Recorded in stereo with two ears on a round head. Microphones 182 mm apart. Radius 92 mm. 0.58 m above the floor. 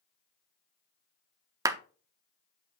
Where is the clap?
15° right (ahead or behind), 0.6 m.